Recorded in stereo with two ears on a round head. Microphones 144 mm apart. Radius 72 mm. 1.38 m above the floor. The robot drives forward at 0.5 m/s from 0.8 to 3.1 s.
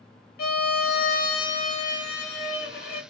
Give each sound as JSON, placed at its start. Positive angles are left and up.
{"t": 0.4, "sound": "a violin", "side_deg": 65, "distance_m": 1.6}